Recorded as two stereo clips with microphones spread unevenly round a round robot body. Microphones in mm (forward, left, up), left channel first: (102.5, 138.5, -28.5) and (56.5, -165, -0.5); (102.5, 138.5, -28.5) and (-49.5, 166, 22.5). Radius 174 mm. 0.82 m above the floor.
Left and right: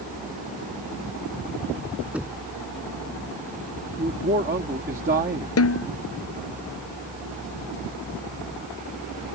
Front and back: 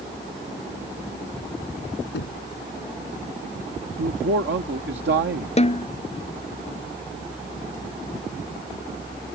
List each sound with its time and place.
2.1 s knocking: 15° right
4.0 s a man speaking: 165° right
5.6 s a snare drum: 40° left